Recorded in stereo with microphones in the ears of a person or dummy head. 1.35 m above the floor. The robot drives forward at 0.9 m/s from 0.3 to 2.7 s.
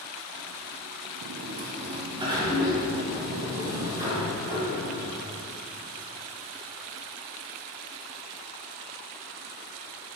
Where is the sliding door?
60° right (ahead or behind), 0.5 m; by 5.2 s 15° right (ahead or behind), 1.6 m.